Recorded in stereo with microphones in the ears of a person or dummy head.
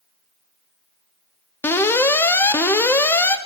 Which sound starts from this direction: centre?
An alarm, at 1.6 s.